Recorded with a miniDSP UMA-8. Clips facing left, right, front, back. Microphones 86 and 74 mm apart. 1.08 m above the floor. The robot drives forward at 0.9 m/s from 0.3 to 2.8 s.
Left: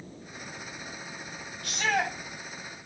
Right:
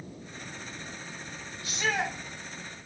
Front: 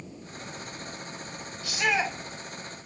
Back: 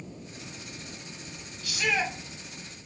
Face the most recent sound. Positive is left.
turn(degrees=70)